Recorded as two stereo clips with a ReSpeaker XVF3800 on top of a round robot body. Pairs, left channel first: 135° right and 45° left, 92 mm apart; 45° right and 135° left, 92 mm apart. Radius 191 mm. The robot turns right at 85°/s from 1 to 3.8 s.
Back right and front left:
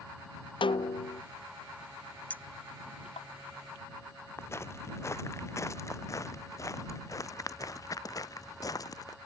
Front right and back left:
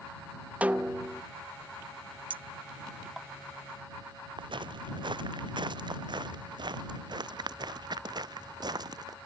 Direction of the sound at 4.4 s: 165° left.